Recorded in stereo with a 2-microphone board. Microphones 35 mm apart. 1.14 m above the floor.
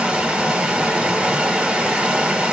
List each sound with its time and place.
0.0 s running water: 30° right (ahead or behind), 1.1 m